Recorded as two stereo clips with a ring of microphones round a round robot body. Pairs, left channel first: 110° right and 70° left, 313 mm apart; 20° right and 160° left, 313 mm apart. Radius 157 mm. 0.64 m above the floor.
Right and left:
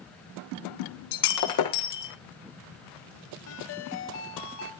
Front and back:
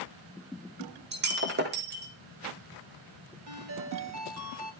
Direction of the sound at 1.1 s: 145° right.